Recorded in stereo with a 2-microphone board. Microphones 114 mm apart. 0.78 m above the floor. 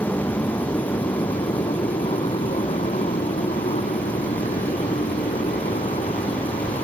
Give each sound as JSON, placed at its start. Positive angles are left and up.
{"t": 0.0, "sound": "a motorcycle", "side_deg": 20}